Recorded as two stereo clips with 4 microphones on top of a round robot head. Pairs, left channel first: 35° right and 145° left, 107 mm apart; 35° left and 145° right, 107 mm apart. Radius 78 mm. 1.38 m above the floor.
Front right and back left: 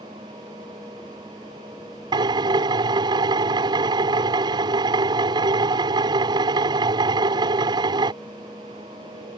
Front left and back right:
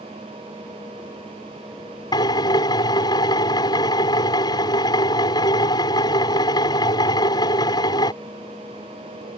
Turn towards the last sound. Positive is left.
turn(degrees=90)